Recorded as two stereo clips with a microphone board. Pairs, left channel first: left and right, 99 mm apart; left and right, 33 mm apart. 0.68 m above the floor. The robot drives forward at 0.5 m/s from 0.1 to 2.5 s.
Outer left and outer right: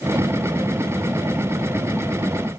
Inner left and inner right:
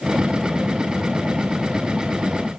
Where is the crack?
I don't hear a crack.